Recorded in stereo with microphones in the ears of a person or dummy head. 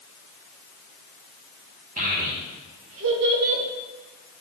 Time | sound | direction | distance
2.0 | a child speaking | 35° right (ahead or behind) | 1.4 m